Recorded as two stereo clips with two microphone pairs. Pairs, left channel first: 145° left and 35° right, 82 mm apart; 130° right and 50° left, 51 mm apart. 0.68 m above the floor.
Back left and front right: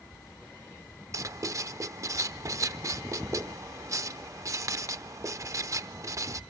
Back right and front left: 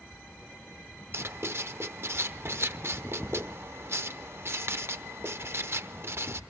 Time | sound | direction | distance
1.1 | writing | 20° left | 0.7 m